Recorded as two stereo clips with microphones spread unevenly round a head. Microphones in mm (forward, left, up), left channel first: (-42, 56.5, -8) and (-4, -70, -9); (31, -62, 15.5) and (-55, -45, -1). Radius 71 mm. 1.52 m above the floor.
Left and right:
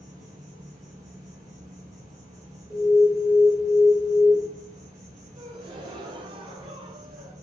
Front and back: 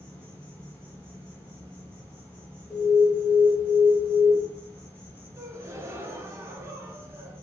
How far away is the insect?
About 1.6 m.